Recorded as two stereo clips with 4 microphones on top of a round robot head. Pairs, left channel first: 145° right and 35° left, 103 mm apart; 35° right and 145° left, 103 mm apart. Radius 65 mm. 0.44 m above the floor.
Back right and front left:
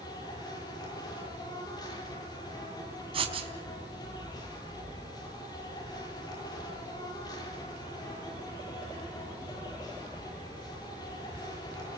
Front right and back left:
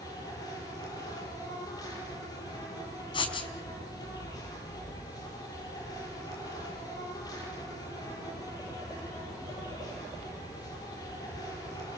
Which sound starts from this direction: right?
An insect, at 0.0 s.